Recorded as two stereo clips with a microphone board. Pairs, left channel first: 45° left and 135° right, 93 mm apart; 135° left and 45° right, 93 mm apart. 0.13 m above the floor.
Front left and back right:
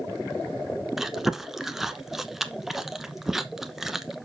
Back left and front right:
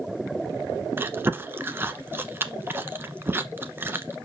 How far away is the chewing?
About 0.9 m.